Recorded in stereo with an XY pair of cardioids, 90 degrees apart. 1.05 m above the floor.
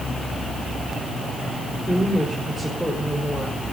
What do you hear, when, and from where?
1.9 s a woman speaking: straight ahead, 5 m